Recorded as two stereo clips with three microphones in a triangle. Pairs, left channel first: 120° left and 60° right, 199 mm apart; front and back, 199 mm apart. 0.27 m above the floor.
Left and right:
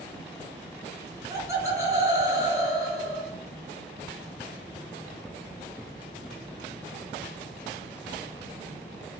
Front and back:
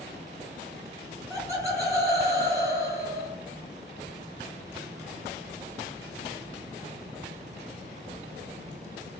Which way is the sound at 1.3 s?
120° right.